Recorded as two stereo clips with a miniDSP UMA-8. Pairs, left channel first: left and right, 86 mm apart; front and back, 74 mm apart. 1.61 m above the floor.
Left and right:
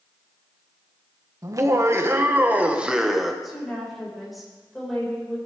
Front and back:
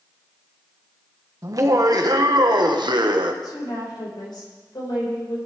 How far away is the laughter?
About 1.6 m.